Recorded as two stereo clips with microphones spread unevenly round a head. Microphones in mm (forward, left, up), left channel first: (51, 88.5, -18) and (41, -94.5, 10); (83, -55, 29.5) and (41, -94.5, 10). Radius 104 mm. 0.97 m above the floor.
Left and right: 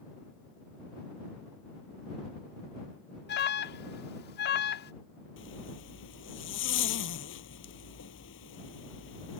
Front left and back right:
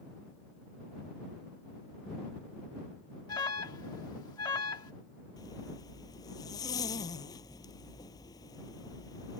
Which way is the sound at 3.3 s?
70° left.